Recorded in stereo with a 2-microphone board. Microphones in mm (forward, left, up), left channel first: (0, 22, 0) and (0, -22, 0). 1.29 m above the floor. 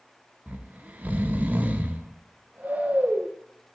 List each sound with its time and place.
0.5 s snoring: 35° right (ahead or behind), 0.7 m